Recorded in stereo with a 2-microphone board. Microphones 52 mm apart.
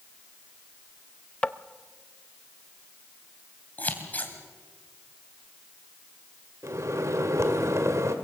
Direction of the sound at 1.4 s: 25° left (ahead or behind).